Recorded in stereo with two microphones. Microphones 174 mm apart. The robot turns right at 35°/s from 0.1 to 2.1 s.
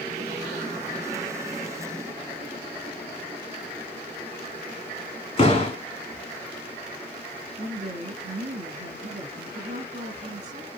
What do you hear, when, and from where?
5.4 s a door slam: 30° left (ahead or behind), 1.6 m
7.6 s a woman speaking: 50° right (ahead or behind), 2 m